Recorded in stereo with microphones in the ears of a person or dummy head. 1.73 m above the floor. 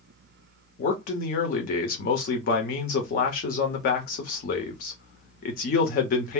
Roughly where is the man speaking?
Left.